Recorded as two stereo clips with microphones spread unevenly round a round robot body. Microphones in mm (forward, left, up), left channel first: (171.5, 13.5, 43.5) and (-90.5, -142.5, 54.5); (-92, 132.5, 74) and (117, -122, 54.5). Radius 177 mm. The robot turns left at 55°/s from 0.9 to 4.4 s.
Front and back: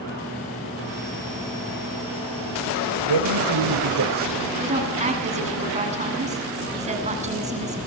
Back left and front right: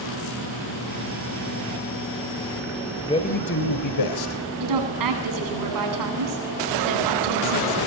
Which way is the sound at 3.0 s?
150° right.